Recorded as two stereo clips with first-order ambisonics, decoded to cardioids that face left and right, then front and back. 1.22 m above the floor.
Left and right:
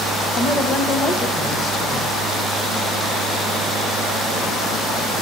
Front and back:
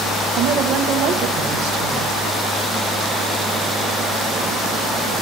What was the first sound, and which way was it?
A woman speaking, 155° left.